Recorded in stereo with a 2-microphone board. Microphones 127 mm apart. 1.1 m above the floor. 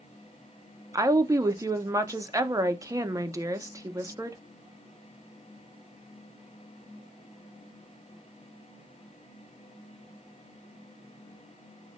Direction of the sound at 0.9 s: 25° right (ahead or behind).